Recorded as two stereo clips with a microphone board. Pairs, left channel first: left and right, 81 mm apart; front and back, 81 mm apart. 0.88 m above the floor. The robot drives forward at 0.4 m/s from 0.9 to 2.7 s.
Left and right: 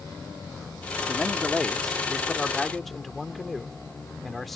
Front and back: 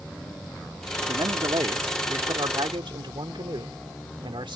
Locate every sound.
1.1 s a man speaking: straight behind